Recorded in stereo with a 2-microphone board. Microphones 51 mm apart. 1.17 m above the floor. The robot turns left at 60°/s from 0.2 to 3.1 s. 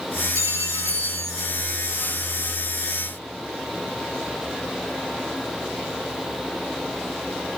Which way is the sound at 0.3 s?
70° right.